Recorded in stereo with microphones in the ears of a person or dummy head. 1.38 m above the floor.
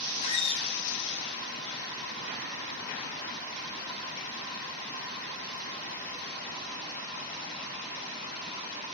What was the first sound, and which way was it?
A squeak, 40° left (ahead or behind).